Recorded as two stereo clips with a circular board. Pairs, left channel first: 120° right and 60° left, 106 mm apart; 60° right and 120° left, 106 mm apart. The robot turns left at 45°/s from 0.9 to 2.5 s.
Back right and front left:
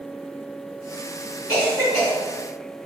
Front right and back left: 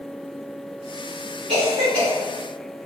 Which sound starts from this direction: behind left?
A cough, at 1.5 s.